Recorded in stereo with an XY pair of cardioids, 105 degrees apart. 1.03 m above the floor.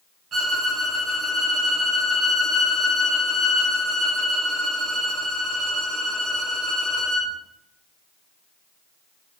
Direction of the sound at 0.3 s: 45° right.